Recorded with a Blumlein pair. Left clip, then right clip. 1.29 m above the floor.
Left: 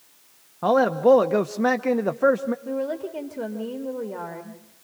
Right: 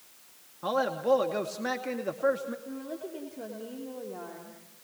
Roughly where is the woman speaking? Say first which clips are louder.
Left 11 dB; ahead left.